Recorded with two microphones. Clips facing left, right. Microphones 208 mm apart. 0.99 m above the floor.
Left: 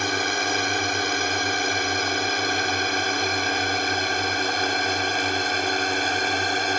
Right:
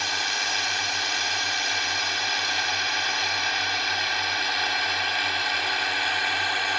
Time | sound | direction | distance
0.0 | a drone | 55° left (ahead or behind) | ?